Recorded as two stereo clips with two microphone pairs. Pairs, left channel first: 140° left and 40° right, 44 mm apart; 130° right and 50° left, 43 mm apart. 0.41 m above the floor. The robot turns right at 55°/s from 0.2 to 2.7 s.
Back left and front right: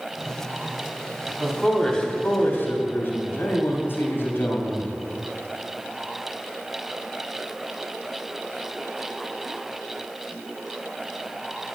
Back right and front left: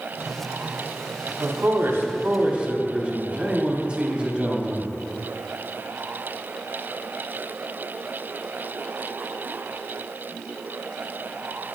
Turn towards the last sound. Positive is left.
turn(degrees=115)